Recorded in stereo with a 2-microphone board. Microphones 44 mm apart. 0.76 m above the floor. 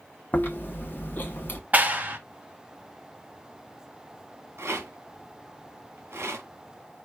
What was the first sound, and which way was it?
Chewing, 40° left (ahead or behind).